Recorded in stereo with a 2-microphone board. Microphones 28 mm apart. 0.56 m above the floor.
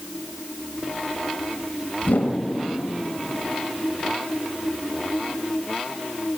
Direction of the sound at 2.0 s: 70° left (ahead or behind).